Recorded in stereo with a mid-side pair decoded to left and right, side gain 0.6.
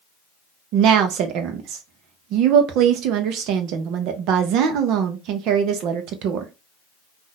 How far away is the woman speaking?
About 0.7 m.